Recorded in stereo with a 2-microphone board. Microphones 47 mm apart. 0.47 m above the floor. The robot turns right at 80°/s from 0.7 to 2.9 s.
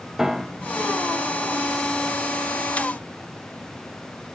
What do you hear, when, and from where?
0.2 s a piano: 10° right (ahead or behind), 0.5 m; by 0.9 s 25° right (ahead or behind), 0.5 m